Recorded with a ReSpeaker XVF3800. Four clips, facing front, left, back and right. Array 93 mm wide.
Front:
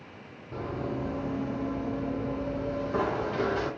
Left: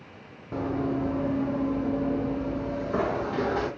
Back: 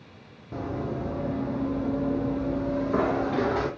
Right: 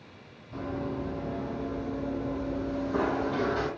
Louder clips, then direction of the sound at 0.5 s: Left 6 dB, back 2 dB; 100° left.